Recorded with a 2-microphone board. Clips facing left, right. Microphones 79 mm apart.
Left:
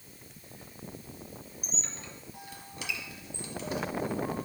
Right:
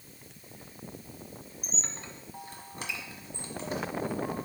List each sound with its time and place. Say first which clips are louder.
1.6 s a squeak: right 2 dB; 40° right (ahead or behind), 1.1 m